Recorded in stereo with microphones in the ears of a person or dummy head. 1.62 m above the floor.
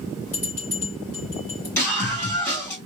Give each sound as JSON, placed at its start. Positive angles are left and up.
{"t": 0.3, "sound": "a bell", "side_deg": 20, "distance_m": 2.0}
{"t": 1.8, "sound": "a scream", "side_deg": 15, "distance_m": 1.8}